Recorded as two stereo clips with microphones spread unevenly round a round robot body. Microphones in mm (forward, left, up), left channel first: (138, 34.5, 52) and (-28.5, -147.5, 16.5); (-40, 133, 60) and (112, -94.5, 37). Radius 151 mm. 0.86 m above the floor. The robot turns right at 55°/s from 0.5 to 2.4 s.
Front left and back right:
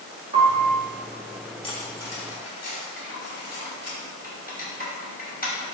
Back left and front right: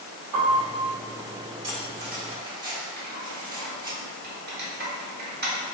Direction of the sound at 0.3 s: 65° right.